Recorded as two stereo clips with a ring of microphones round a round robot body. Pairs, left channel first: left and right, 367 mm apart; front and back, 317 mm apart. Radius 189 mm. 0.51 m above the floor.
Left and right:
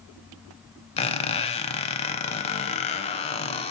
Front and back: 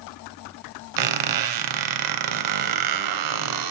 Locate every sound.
1.0 s a squeak: 165° left, 0.6 m